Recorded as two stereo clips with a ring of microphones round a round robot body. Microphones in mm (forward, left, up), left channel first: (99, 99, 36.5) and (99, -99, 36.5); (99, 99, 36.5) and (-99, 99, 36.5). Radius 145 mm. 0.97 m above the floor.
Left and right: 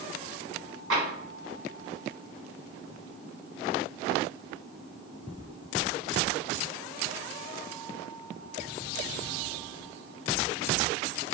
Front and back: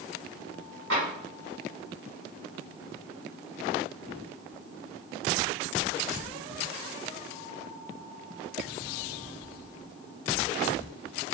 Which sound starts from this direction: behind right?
Tapping, at 0.9 s.